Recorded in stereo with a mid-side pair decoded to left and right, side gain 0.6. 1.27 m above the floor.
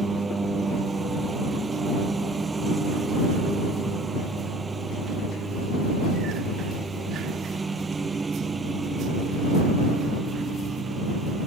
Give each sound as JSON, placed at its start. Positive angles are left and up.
{"t": 0.0, "sound": "a lawn mower", "azimuth_deg": -20}